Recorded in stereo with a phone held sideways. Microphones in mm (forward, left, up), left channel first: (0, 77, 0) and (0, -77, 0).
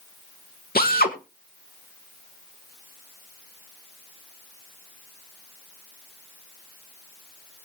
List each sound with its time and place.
0.8 s a drill: 80° left, 2.0 m